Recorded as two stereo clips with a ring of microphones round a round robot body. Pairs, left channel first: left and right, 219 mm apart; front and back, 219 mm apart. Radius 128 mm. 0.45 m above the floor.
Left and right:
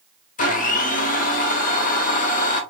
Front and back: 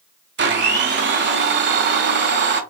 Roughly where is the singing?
I don't hear singing.